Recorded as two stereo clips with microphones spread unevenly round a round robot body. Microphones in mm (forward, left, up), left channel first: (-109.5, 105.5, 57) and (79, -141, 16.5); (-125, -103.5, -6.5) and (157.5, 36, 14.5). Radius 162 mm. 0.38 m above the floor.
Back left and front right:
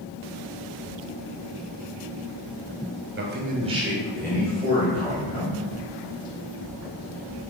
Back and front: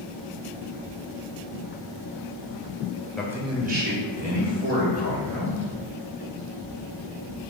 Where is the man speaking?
70° right, 1.1 m; by 5.7 s 60° left, 2.5 m.